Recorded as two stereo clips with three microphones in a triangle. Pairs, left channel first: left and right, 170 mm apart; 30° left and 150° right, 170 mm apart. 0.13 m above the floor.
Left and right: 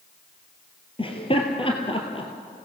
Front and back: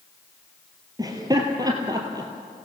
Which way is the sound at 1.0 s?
145° left.